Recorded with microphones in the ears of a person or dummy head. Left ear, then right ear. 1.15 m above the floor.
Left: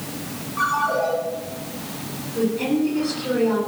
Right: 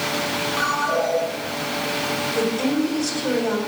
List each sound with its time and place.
0.6 s a ringtone: 20° right (ahead or behind), 7.5 m
2.4 s a woman speaking: 65° right (ahead or behind), 7.5 m